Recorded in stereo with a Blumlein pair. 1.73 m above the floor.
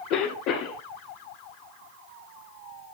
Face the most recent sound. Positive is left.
turn(degrees=40)